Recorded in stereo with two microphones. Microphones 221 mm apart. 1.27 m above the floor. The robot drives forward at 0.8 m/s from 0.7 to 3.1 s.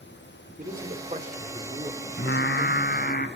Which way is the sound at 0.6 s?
40° right (ahead or behind).